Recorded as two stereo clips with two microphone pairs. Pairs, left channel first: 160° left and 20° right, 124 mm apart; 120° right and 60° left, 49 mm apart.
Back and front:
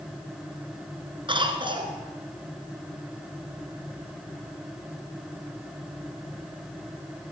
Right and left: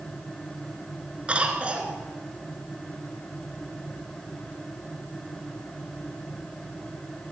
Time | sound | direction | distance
1.3 | a cough | 5° left | 1.4 m